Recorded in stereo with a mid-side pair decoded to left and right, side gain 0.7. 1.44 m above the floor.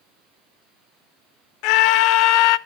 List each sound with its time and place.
1.6 s a scream: 65° left, 0.6 m